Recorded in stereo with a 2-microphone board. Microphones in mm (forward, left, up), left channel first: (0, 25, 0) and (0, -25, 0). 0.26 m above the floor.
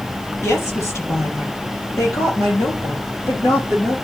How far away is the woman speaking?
About 5 m.